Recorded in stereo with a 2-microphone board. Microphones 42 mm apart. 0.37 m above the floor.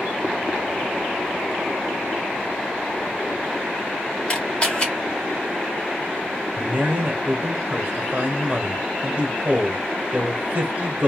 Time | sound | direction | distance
4.3 | a camera shutter | 25° left (ahead or behind) | 1.5 m
6.6 | a man speaking | 40° right (ahead or behind) | 1.3 m